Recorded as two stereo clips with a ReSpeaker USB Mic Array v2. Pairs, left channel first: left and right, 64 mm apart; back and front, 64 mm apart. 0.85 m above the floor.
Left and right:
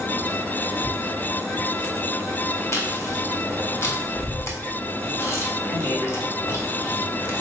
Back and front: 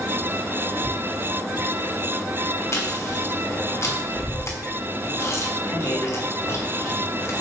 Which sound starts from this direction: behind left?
Chewing, at 2.7 s.